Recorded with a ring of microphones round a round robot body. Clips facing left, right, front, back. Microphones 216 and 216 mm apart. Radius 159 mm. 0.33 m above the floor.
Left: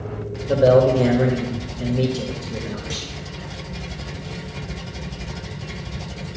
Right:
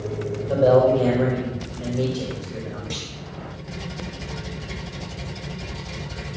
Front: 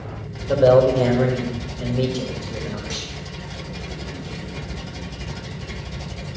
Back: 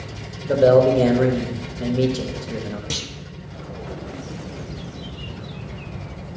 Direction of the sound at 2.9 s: 175° left.